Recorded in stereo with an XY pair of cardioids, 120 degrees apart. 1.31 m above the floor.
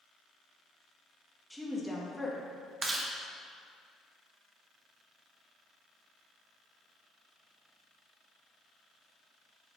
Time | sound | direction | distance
1.5 | a woman speaking | straight ahead | 1.5 m
2.8 | chewing | 25° right | 0.9 m